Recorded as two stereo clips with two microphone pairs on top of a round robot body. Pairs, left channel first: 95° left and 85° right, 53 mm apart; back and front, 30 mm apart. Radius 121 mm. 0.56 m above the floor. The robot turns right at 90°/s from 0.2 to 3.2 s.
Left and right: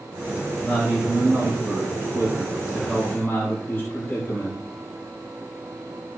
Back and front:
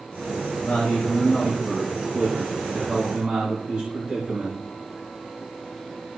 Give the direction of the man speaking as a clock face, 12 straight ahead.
6 o'clock.